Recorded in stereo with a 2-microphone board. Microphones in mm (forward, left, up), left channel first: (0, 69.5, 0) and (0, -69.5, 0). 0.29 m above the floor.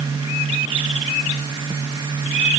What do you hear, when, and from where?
Only background noise.